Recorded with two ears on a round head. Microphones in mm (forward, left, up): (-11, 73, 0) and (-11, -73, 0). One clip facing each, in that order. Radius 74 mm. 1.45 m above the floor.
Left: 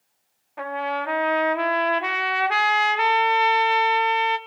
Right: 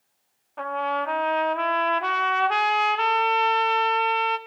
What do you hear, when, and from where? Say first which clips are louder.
0.6 s a trumpet: even; 10° left (ahead or behind), 1.9 m